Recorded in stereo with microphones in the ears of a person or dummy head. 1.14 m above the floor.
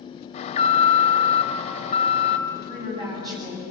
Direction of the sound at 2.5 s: 15° right (ahead or behind).